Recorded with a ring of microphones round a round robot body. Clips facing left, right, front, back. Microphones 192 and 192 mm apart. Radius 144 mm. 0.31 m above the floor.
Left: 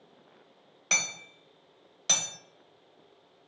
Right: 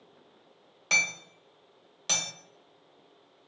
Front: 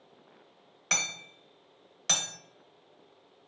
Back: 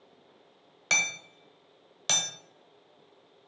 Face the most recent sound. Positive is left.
turn(degrees=180)